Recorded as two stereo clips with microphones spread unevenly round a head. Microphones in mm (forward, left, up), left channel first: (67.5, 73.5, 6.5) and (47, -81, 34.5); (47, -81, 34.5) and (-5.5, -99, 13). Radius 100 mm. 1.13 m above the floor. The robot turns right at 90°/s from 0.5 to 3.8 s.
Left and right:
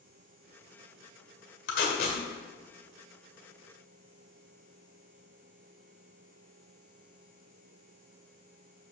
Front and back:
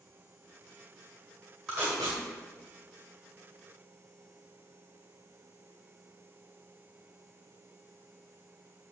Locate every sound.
1.7 s tape being pulled: 100° left, 1.6 m; by 2.2 s 145° left, 1.6 m